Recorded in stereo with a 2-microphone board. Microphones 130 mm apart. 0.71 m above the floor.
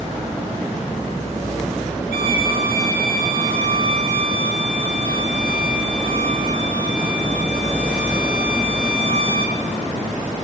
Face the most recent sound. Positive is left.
turn(degrees=80)